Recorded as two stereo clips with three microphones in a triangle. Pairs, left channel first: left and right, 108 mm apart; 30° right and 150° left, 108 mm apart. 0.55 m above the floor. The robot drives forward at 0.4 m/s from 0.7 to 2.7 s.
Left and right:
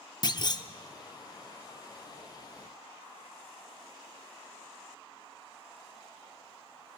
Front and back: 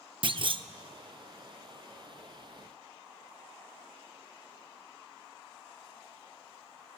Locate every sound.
0.2 s a clunk: 130° left, 0.6 m